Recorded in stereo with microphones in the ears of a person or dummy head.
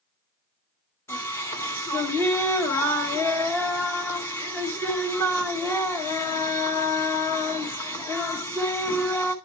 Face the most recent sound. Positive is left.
turn(degrees=10)  # may be behind; listen again after turning